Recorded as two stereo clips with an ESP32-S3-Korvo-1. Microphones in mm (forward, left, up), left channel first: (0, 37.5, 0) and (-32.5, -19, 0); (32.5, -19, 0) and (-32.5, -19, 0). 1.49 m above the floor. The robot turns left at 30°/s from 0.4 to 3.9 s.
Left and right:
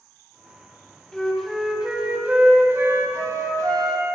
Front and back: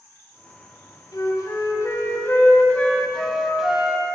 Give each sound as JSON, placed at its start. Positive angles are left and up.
{"t": 1.1, "sound": "a flute", "azimuth_deg": -20, "distance_m": 1.2}